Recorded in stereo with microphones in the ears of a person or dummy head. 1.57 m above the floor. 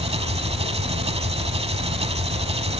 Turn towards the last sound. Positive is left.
turn(degrees=-30)  # may be behind; listen again after turning